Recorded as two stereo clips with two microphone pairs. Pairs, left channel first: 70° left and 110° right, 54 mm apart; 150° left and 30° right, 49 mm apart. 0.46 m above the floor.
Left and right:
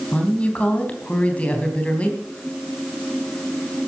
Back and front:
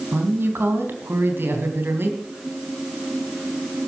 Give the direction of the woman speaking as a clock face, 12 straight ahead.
12 o'clock.